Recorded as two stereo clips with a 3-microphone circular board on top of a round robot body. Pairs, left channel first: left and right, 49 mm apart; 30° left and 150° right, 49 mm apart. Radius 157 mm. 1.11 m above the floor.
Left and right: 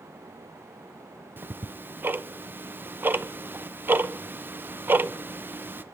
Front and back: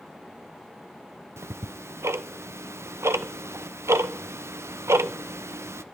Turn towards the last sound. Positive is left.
turn(degrees=-135)